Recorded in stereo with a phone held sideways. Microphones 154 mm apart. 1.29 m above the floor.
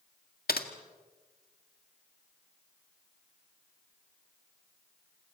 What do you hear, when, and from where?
0.5 s typing on a keyboard: 80° left, 1.8 m